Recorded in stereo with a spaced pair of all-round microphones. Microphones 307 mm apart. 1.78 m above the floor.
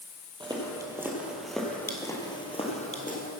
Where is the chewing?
No chewing in this recording.